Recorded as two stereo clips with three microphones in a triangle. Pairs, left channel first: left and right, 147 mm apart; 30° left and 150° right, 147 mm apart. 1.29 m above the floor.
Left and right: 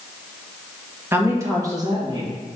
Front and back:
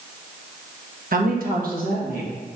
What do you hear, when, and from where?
1.1 s a woman speaking: 165° right, 1.6 m; by 2.3 s 150° right, 2.5 m